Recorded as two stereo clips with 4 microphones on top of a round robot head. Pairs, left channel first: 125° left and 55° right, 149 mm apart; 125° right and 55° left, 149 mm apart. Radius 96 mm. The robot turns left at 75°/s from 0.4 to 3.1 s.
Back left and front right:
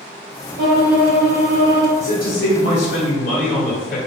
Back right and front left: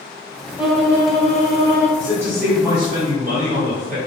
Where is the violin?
25° right, 0.8 m; by 1.9 s 125° right, 0.8 m.